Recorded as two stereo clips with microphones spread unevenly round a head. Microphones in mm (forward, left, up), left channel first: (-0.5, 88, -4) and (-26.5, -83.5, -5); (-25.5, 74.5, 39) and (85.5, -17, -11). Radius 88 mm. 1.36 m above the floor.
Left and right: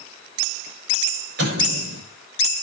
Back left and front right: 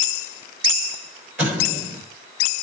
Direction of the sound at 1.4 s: 120° right.